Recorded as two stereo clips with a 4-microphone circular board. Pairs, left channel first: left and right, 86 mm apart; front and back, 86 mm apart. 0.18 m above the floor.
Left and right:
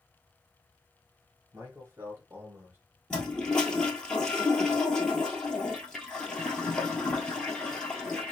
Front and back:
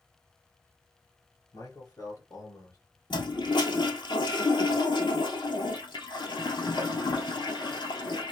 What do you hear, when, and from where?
1.5 s a man speaking: 35° right, 3 m; by 2.8 s 30° right, 2 m
3.1 s a toilet flushing: 10° left, 1.3 m